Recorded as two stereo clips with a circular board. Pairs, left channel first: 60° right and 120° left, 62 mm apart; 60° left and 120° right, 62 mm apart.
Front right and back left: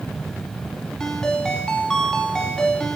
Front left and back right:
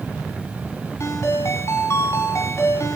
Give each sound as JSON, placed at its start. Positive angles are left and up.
{"t": 1.0, "sound": "a ringtone", "azimuth_deg": 20, "distance_m": 4.5}